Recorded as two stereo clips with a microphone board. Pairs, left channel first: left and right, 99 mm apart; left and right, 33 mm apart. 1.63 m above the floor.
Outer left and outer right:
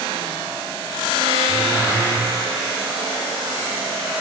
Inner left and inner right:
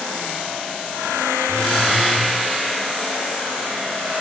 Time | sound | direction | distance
1.5 | a phone buzzing | 30° left (ahead or behind) | 0.9 m